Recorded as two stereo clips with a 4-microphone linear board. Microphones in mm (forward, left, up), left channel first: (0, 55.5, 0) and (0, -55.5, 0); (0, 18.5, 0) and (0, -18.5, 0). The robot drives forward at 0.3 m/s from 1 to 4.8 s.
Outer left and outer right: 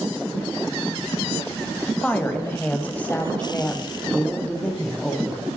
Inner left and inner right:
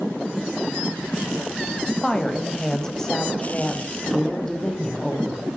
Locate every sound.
2.0 s a woman speaking: 15° left (ahead or behind), 1.0 m